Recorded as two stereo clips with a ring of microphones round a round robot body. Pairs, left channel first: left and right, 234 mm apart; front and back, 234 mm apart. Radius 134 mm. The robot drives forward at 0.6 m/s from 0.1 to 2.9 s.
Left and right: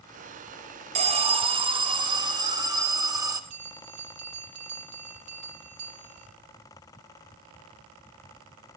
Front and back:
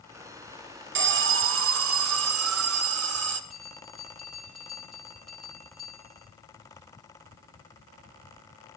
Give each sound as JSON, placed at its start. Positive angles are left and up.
{"t": 0.9, "sound": "an alarm", "azimuth_deg": -150, "distance_m": 1.4}
{"t": 3.5, "sound": "a bell", "azimuth_deg": -90, "distance_m": 4.0}